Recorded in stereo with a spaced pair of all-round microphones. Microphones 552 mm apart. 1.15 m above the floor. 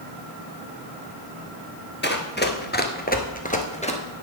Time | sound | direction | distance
2.0 | running footsteps | 20° left (ahead or behind) | 1.3 m